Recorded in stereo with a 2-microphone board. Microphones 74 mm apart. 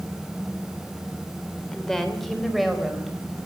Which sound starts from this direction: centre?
A woman speaking, at 1.7 s.